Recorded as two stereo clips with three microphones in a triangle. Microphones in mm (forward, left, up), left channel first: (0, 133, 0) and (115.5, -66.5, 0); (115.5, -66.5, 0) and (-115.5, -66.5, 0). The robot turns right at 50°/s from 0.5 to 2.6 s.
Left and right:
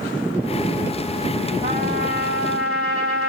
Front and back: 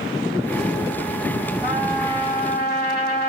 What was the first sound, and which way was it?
A trumpet, 95° right.